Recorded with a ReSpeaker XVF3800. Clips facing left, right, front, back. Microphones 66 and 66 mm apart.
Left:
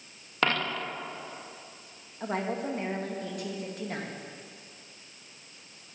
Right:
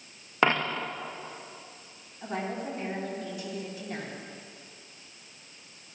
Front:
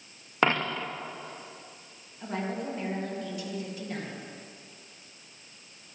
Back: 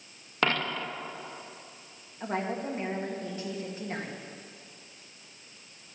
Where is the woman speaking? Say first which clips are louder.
Left 2 dB, back 1 dB; 125° left, 1.8 m.